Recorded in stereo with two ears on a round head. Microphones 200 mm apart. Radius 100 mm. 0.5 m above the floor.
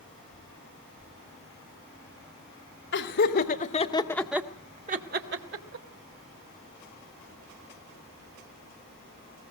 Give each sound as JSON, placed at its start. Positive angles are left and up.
{"t": 2.9, "sound": "laughter", "side_deg": 55, "distance_m": 2.5}